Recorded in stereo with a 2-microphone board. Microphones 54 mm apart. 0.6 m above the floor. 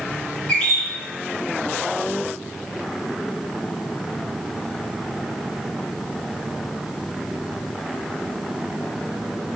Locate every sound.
0.5 s a bird: 15° left (ahead or behind), 1.3 m